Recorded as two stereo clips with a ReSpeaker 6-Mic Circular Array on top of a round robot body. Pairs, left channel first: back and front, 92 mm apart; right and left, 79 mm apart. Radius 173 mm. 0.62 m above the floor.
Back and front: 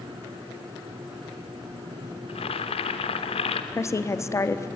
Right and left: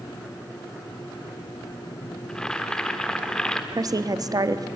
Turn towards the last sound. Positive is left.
turn(degrees=125)